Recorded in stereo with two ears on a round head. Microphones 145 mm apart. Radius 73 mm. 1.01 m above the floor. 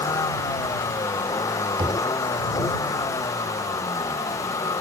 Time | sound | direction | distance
0.0 | a vehicle | 20° left (ahead or behind) | ?
1.8 | knocking | 30° right (ahead or behind) | ?